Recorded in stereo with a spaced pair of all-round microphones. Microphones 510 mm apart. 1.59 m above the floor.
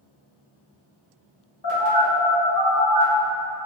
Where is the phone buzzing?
40° left (ahead or behind), 1.9 m.